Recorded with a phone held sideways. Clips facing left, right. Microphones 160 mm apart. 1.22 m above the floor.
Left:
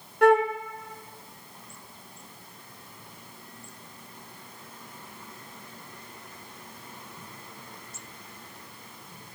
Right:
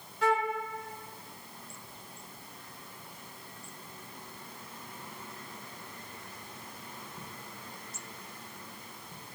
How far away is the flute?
About 0.7 m.